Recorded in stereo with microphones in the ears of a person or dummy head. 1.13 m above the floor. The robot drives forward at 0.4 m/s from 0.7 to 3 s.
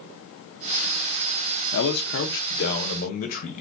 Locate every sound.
1.7 s a man speaking: 70° left (ahead or behind), 0.7 m; by 3.6 s 45° left (ahead or behind), 1.0 m